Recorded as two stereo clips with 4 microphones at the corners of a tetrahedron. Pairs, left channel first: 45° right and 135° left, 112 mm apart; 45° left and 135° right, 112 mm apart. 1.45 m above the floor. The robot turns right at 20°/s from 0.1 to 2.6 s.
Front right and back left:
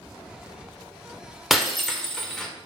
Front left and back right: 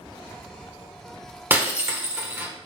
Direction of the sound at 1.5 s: 135° right.